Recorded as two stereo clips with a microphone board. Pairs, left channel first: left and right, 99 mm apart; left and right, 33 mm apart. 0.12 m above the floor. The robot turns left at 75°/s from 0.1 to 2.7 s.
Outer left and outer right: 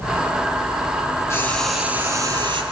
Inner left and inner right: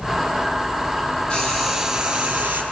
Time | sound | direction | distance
1.3 | frying | 30° left | 4 m